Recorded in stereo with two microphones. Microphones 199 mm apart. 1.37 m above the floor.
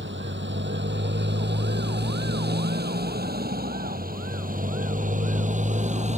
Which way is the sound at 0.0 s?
65° right (ahead or behind).